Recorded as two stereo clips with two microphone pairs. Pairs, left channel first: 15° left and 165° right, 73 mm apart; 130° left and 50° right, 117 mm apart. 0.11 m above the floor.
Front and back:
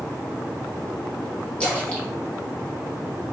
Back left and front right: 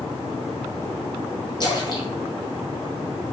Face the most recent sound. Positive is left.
turn(degrees=85)